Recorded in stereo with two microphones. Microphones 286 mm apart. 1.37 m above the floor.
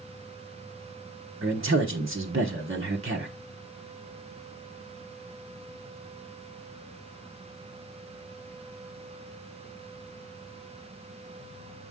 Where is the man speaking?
50° right (ahead or behind), 1.1 m.